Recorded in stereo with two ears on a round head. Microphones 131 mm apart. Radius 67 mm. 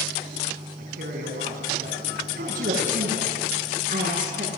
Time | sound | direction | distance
0.8 | a man speaking | 70° right (ahead or behind) | 5.5 m
2.4 | a woman speaking | 55° right (ahead or behind) | 8.5 m